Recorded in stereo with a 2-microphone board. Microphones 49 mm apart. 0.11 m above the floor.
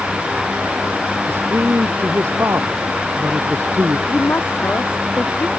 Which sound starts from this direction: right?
A man speaking, at 1.3 s.